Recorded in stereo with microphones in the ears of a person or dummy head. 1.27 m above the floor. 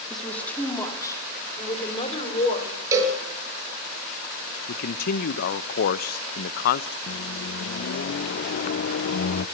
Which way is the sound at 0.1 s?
Centre (ahead or behind).